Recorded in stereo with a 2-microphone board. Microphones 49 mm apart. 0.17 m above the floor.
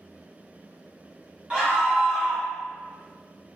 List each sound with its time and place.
1.5 s a scream: 20° right (ahead or behind), 1.3 m